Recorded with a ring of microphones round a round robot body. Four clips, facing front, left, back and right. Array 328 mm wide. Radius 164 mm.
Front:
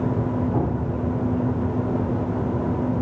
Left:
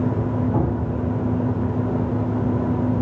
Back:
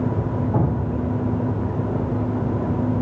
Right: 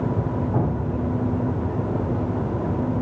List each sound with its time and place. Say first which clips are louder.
0.5 s dripping: left 1 dB, back 1 dB; 165° right, 7.5 m